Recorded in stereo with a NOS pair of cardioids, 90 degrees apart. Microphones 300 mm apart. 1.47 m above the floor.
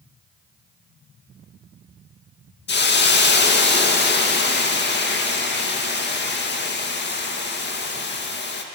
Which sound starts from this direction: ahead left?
A hiss, at 2.7 s.